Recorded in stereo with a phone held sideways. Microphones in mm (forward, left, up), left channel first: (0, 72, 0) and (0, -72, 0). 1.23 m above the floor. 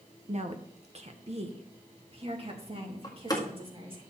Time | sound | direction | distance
0.3 | a woman speaking | 50° right (ahead or behind) | 0.9 m
3.0 | a door slam | 25° left (ahead or behind) | 1.8 m